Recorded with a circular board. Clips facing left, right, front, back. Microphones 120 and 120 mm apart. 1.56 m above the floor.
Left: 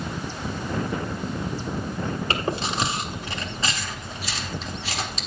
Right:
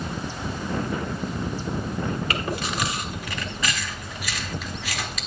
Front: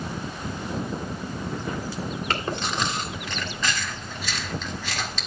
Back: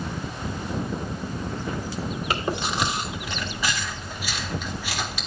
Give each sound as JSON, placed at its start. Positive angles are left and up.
{"t": 2.3, "sound": "chewing", "azimuth_deg": 110, "distance_m": 1.3}